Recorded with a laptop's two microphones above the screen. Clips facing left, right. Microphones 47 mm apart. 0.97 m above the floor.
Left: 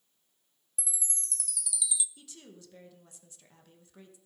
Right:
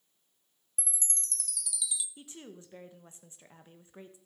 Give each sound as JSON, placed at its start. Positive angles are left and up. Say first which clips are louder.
{"t": 0.8, "sound": "a chime", "louder": "right 1 dB", "side_deg": 5, "distance_m": 0.6}
{"t": 2.2, "sound": "a woman speaking", "louder": "right 4 dB", "side_deg": -30, "distance_m": 0.8}